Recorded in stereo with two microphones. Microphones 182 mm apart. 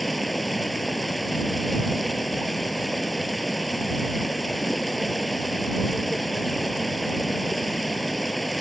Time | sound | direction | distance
0.0 | running water | centre (ahead or behind) | ?